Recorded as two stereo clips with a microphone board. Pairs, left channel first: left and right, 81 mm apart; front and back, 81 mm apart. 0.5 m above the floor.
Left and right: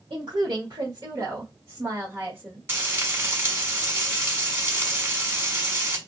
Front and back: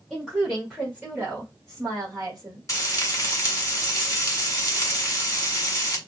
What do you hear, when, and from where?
0.1 s a woman speaking: 90° right, 1.4 m; by 2.7 s 155° right, 1.6 m
2.7 s frying: 40° right, 1.5 m